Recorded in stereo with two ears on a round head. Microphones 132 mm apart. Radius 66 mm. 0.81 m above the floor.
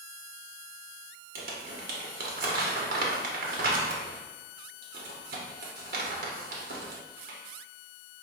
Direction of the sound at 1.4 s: 65° right (ahead or behind).